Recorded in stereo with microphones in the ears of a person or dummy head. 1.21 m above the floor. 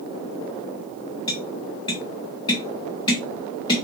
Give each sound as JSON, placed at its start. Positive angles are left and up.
{"t": 1.3, "sound": "tapping", "side_deg": 25, "distance_m": 0.8}